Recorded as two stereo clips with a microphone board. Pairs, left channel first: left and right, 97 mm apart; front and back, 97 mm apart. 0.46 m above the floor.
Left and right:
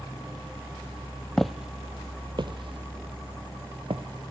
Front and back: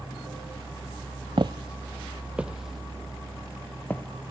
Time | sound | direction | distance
1.4 | footsteps | 175° left | 0.7 m